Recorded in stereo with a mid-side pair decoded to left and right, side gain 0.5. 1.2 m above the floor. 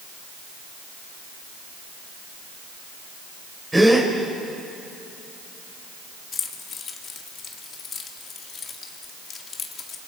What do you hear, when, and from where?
3.7 s a gasp: 15° right, 4 m
6.3 s keys jangling: 45° left, 1.9 m